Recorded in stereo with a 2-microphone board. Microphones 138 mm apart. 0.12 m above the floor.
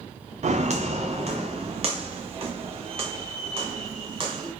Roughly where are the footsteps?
Right.